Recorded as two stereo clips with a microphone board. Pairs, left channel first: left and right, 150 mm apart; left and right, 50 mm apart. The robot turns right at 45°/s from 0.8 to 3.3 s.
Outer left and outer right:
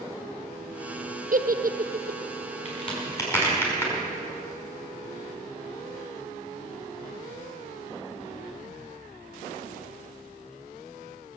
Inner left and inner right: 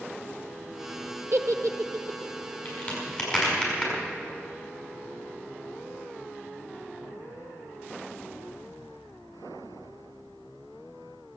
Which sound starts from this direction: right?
A giggle, at 1.3 s.